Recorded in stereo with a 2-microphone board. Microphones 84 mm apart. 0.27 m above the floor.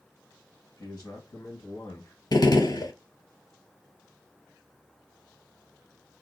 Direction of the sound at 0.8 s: 45° left (ahead or behind).